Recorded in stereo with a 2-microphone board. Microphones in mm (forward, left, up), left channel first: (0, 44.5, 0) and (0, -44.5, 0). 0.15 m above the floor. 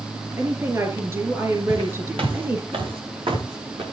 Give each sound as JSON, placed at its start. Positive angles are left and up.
{"t": 0.4, "sound": "a woman speaking", "side_deg": -35, "distance_m": 5.0}
{"t": 1.7, "sound": "footsteps", "side_deg": -85, "distance_m": 7.0}